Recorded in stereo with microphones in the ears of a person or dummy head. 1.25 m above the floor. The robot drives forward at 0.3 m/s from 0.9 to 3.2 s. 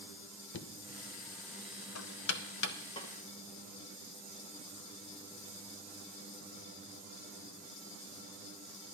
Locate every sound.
0.5 s knocking: 65° left (ahead or behind), 0.6 m; by 2.8 s 60° left (ahead or behind), 0.6 m
3.0 s a snare drum: 35° left (ahead or behind), 1.1 m